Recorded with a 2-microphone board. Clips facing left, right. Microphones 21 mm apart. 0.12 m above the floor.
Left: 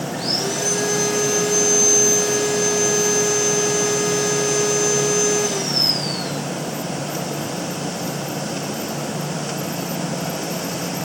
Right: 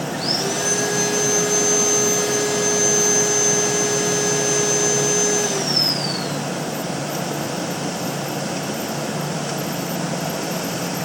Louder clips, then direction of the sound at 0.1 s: Even; 10° right (ahead or behind).